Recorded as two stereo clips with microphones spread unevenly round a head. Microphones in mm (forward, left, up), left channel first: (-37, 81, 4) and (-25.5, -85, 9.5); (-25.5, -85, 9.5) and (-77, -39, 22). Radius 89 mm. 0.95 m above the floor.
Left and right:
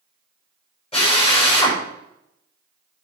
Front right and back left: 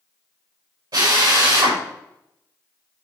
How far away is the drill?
About 5 m.